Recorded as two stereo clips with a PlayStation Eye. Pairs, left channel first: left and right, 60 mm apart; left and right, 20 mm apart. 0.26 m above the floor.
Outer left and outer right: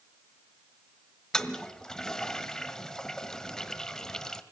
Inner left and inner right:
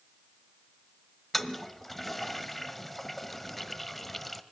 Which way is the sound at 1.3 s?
10° left (ahead or behind).